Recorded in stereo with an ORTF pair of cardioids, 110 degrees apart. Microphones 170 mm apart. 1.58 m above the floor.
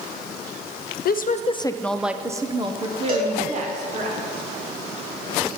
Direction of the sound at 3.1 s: 65° right.